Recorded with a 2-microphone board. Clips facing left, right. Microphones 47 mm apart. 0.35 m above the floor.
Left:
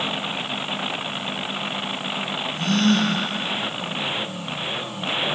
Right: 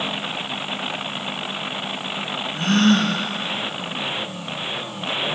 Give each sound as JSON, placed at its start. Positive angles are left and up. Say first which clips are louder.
{"t": 2.5, "sound": "a gasp", "louder": "right 3 dB", "side_deg": -45, "distance_m": 2.5}